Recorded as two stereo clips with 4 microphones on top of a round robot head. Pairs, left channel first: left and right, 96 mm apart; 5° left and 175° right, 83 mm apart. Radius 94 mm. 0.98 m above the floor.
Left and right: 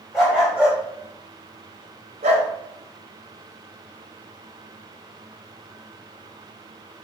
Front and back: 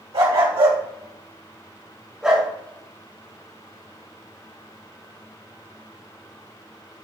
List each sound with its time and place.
0.1 s a dog barking: 175° right, 2.5 m; by 2.5 s 85° right, 1.9 m